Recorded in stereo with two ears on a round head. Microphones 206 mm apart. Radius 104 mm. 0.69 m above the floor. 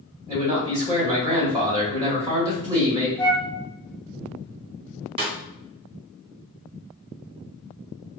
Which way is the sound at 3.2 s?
10° left (ahead or behind).